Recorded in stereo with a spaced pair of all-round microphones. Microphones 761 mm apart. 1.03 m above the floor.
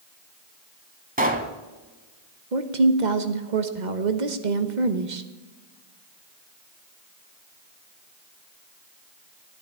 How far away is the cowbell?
No cowbell in this recording.